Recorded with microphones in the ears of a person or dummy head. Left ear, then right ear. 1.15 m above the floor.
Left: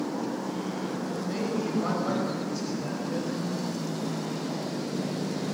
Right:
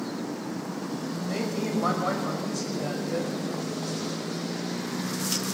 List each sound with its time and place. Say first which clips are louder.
1.3 s a woman speaking: right 1 dB; 35° right (ahead or behind), 6.5 m